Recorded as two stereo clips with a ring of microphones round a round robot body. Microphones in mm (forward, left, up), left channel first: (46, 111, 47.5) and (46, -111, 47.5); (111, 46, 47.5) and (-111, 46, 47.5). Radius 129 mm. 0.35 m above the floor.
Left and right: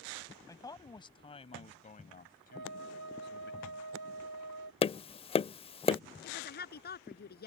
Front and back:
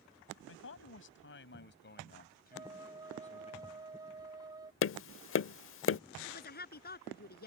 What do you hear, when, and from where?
0.5 s a man speaking: 15° left; by 3.5 s 60° left
2.5 s a flute: 105° right
4.8 s tapping: 25° left
6.2 s a woman speaking: 45° left